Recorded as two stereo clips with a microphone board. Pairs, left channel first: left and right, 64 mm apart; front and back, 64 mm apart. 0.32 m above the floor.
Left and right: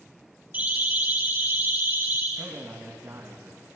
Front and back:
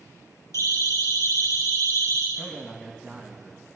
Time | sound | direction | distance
0.5 | a siren | 35° right | 8 m
2.4 | a man speaking | 85° right | 2.5 m